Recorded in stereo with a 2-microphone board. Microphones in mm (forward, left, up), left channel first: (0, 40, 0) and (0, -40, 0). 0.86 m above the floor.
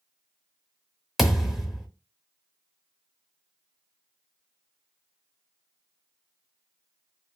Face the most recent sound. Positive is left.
turn(degrees=0)  # may be behind; listen again after turning